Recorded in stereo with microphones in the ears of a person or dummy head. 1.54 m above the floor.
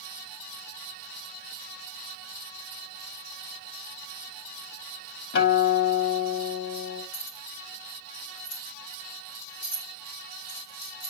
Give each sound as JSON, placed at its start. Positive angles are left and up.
{"t": 5.3, "sound": "a guitar", "side_deg": 55, "distance_m": 2.5}
{"t": 7.1, "sound": "keys jangling", "side_deg": 80, "distance_m": 3.0}